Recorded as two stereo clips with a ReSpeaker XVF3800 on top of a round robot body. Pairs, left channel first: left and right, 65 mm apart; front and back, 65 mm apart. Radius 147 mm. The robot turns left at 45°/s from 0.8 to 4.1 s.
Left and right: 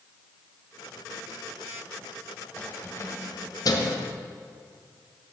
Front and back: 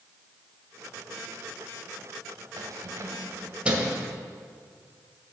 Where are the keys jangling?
155° left, 1.7 m; by 4.0 s 90° left, 1.7 m.